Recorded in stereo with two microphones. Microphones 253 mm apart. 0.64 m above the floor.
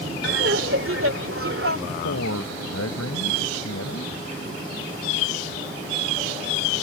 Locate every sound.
0.2 s laughter: 60° right (ahead or behind)
1.9 s a man speaking: 75° left (ahead or behind)